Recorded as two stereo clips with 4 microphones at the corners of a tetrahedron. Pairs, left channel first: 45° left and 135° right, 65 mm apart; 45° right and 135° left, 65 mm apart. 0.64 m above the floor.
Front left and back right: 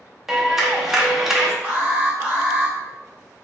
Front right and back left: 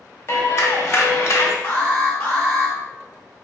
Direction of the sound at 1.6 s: 80° right.